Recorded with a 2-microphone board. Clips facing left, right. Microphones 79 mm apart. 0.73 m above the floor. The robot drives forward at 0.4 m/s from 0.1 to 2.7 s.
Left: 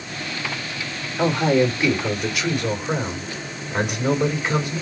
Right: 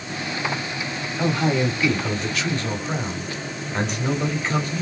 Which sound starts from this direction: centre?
A man speaking, at 1.2 s.